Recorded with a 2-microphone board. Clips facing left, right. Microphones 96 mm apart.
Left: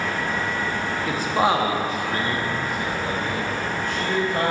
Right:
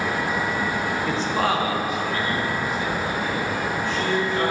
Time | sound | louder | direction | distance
1.1 | a man speaking | left 4 dB | centre (ahead or behind) | 0.9 m